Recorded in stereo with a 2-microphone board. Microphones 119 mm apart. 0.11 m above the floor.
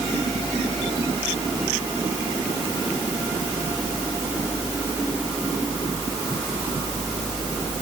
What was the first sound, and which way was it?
Only background noise.